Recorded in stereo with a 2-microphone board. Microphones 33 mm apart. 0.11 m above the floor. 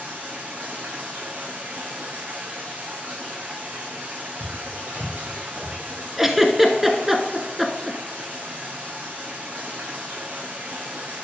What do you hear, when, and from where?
0.0 s running water: 50° right (ahead or behind), 2 m
4.4 s footsteps: 40° right (ahead or behind), 4.5 m; by 5.7 s 50° right (ahead or behind), 4.5 m
6.2 s a giggle: 5° right (ahead or behind), 1.1 m